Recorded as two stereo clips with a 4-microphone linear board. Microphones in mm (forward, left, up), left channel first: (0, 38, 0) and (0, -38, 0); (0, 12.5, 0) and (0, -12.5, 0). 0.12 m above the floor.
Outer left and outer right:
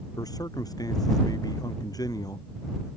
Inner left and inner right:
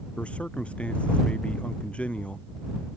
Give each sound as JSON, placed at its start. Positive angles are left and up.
{"t": 0.2, "sound": "a man speaking", "side_deg": 60}